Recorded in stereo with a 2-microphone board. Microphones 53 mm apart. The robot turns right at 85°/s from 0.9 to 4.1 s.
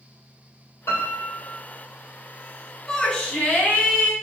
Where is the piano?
70° left, 2.5 m; by 1.6 s 125° left, 2.5 m.